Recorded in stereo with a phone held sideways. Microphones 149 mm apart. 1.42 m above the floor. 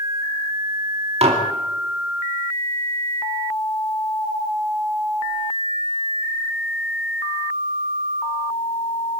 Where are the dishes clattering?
45° right (ahead or behind), 2 m.